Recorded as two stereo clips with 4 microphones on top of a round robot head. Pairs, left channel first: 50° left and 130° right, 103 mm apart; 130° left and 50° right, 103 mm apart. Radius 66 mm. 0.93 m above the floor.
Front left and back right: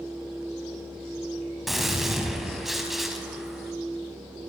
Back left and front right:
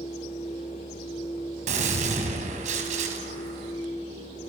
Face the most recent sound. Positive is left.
turn(degrees=-40)